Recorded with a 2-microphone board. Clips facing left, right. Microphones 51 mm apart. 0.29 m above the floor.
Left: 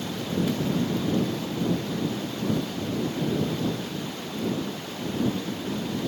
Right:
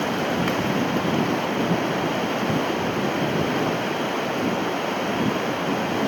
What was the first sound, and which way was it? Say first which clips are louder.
Running water: right 5 dB; 60° right (ahead or behind).